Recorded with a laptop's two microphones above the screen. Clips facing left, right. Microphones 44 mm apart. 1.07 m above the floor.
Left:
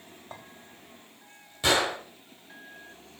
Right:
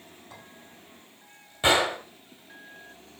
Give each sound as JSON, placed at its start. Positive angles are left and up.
{"t": 0.3, "sound": "a clink", "side_deg": 40, "distance_m": 3.0}
{"t": 1.6, "sound": "a gunshot", "side_deg": -25, "distance_m": 1.9}